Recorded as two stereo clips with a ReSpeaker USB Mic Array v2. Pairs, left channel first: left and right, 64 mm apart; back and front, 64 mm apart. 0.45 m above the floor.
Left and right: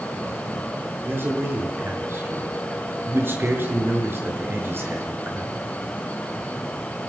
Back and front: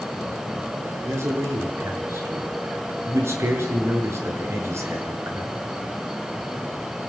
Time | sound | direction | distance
1.1 | a man speaking | 40° right | 6 m